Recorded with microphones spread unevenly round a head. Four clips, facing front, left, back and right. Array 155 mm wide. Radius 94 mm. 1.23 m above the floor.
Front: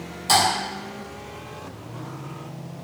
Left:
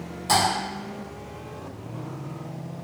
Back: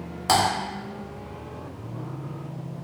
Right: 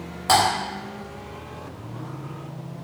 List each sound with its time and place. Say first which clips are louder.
0.3 s typing on a keyboard: right 4 dB, even; 110° right, 0.8 m